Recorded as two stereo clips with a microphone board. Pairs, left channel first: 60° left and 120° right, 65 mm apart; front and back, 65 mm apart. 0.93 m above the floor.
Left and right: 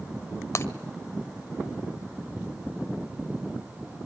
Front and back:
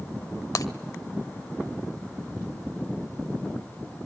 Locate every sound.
0.6 s breaking glass: 20° left, 1.5 m